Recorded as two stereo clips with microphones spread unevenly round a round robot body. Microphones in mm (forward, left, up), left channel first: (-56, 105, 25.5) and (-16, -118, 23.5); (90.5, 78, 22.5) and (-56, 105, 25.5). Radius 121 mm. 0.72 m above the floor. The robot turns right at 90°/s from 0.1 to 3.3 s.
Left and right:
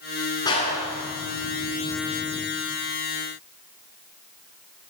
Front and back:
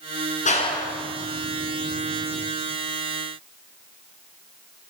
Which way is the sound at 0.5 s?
25° left.